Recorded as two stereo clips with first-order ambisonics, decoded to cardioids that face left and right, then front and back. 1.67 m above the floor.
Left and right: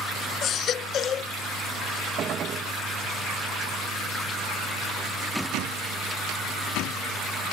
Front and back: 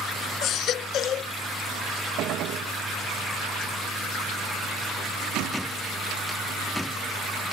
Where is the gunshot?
145° right.